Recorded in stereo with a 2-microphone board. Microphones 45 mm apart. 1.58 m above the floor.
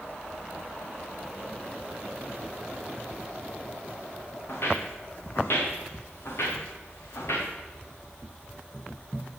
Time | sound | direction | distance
4.5 | footsteps | 50° left (ahead or behind) | 6 m